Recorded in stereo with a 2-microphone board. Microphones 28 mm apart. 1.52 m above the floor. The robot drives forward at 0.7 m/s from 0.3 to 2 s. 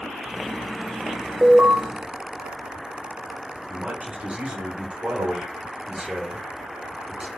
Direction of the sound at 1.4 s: 75° right (ahead or behind).